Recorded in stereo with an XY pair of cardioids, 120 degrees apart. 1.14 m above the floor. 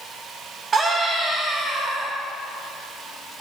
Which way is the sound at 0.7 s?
35° right.